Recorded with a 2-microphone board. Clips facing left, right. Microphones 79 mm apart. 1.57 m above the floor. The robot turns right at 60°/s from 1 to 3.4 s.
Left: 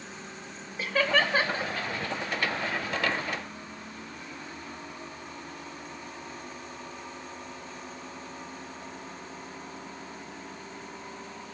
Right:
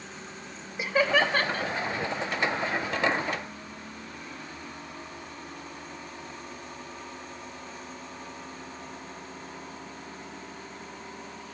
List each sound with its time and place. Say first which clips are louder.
0.8 s laughter: right 2 dB; 15° right (ahead or behind), 1.3 m; by 1.7 s 30° left (ahead or behind), 1.3 m